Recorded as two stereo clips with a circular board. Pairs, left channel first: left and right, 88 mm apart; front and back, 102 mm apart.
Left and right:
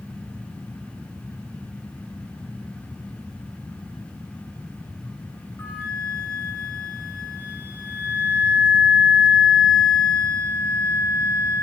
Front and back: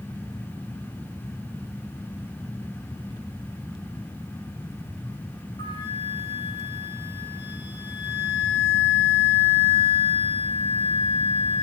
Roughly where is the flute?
Ahead.